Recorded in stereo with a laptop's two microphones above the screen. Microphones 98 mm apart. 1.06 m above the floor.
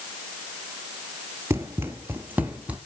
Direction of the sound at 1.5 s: 25° right (ahead or behind).